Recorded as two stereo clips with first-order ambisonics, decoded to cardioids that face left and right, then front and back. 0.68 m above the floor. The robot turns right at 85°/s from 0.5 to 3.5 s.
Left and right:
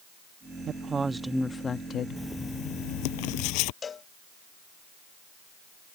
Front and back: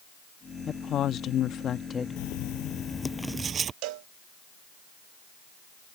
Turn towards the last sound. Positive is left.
turn(degrees=160)